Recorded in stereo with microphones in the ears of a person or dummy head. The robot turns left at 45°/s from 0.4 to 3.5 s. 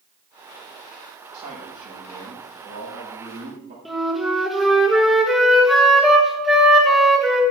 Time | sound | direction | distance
1.3 | a man speaking | 45° right | 6 m
3.9 | a flute | 5° right (ahead or behind) | 1.3 m